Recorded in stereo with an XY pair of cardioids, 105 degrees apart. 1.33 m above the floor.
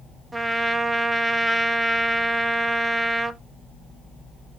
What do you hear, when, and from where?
0.3 s a trumpet: 20° right, 0.6 m